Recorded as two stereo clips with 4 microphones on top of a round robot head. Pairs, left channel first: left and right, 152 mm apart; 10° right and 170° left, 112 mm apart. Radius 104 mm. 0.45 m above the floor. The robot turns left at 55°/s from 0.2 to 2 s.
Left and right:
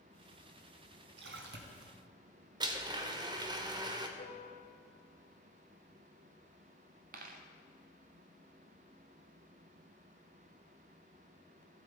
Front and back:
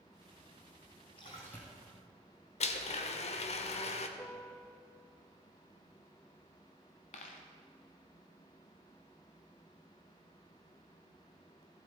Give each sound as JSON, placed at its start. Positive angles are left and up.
{"t": 1.2, "sound": "a splash", "azimuth_deg": -70, "distance_m": 1.2}
{"t": 2.6, "sound": "a blender", "azimuth_deg": -25, "distance_m": 0.7}
{"t": 4.2, "sound": "a piano", "azimuth_deg": 70, "distance_m": 1.5}
{"t": 7.1, "sound": "a dropped coin", "azimuth_deg": -45, "distance_m": 0.7}